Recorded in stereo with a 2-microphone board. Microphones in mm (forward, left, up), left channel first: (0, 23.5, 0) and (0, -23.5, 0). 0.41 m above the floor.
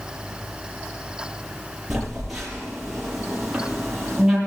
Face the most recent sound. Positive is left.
turn(degrees=-5)  # may be behind; listen again after turning